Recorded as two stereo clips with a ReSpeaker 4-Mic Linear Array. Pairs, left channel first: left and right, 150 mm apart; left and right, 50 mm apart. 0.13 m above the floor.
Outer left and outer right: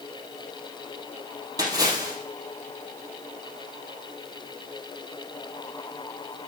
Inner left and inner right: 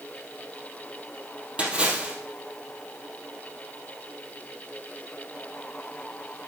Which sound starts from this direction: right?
A splash, at 1.6 s.